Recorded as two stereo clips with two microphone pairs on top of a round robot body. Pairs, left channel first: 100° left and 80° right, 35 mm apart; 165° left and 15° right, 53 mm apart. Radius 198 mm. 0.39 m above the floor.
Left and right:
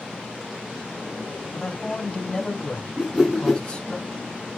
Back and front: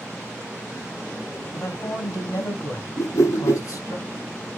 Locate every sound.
1.5 s a man speaking: 170° left, 5 m
3.0 s a whoosh: 160° right, 5.5 m